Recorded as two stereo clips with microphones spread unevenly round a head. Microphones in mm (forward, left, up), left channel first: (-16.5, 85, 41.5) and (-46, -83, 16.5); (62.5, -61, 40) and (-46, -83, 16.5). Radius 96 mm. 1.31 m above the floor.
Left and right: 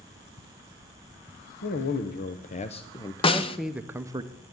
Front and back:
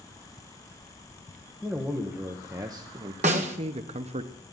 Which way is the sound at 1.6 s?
110° left.